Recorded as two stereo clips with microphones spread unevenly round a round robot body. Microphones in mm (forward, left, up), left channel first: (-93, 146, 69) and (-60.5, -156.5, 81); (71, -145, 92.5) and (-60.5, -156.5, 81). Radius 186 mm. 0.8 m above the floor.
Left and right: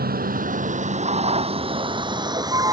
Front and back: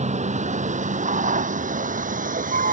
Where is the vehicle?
145° right; by 2.7 s 165° right.